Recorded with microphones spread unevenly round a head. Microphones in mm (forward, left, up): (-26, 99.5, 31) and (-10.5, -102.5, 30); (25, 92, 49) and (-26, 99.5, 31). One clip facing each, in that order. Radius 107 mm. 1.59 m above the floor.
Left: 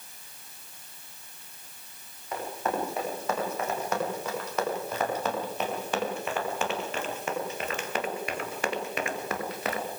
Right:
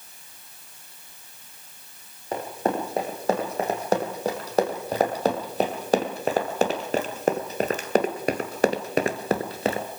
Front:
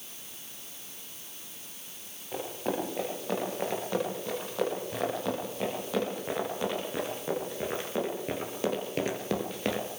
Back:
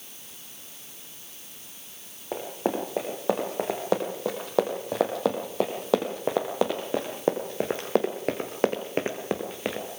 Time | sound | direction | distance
2.3 | running footsteps | 145° right | 6 m